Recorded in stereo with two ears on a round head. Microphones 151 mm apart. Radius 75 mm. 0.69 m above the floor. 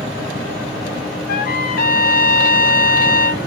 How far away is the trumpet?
About 0.6 m.